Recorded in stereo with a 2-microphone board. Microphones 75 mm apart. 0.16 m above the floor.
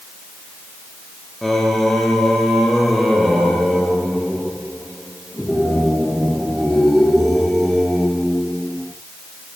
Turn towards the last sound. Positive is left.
turn(degrees=5)  # may be behind; listen again after turning